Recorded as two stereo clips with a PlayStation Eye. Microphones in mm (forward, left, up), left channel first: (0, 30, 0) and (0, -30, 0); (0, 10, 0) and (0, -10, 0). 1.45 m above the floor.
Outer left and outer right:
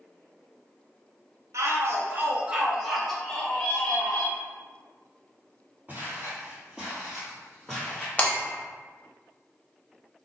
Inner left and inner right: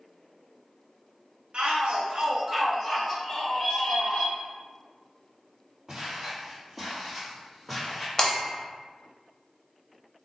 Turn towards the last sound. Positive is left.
turn(degrees=25)  # may be behind; listen again after turning